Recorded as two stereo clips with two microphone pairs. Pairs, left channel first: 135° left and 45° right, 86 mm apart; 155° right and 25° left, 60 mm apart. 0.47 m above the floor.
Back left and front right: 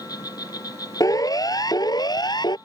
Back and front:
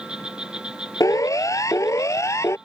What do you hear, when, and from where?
0.0 s an insect: 100° left
1.0 s a siren: straight behind; by 2.6 s 165° left